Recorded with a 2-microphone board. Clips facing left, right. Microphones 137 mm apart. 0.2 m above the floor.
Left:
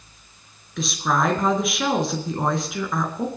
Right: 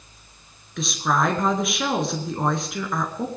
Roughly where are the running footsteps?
I don't hear running footsteps.